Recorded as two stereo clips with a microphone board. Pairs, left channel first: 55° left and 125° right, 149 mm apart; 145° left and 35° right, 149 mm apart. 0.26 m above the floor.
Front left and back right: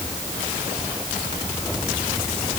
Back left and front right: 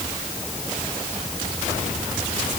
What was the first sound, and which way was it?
Only background noise.